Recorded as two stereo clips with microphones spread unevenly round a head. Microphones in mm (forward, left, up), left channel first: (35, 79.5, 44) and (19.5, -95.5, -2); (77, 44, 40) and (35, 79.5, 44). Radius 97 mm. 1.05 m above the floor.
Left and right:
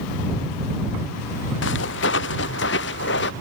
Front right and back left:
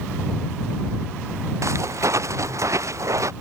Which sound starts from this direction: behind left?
Footsteps, at 1.6 s.